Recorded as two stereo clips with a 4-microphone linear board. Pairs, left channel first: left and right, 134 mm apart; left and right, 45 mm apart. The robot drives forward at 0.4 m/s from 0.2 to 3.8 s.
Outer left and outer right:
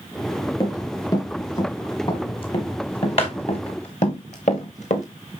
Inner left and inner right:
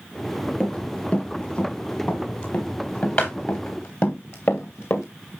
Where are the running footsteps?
30° left (ahead or behind), 5.5 m; by 5.0 s 65° left (ahead or behind), 3 m.